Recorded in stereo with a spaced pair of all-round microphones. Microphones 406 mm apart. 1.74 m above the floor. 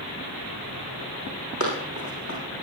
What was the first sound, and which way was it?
Running footsteps, 40° left (ahead or behind).